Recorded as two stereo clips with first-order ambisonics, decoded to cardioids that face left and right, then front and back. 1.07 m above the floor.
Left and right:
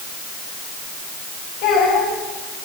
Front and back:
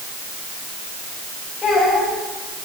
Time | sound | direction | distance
1.6 | a child speaking | 70° left | 4.5 m